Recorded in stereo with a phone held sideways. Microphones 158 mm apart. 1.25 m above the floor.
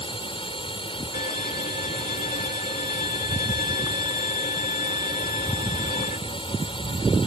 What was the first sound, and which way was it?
A drone, 35° left (ahead or behind).